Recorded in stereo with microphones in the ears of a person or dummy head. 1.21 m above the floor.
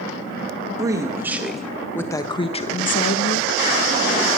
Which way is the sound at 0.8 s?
20° right (ahead or behind).